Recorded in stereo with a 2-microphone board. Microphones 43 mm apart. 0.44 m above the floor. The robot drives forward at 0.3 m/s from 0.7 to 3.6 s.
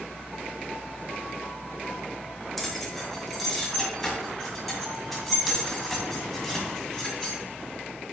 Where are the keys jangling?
5° left (ahead or behind), 1.5 m.